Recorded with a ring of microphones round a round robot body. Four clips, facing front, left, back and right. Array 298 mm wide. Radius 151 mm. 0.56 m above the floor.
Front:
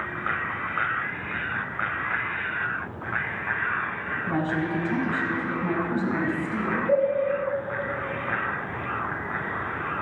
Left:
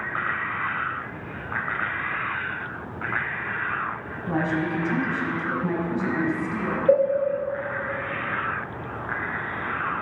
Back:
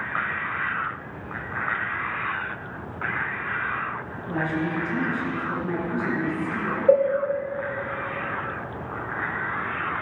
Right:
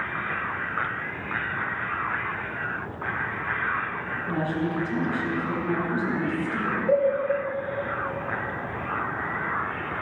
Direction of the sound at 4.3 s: 40° left.